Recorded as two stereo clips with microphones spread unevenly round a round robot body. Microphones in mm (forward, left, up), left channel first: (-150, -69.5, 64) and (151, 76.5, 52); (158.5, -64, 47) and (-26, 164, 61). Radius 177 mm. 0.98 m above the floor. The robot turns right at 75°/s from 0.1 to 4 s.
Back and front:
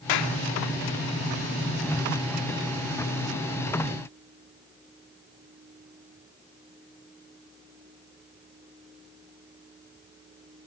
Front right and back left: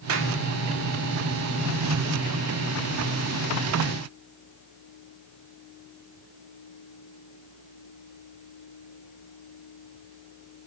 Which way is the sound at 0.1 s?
Straight behind.